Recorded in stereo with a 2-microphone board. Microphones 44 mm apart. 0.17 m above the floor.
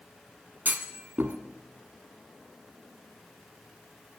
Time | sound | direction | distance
0.7 | a clunk | 40° right (ahead or behind) | 1.3 m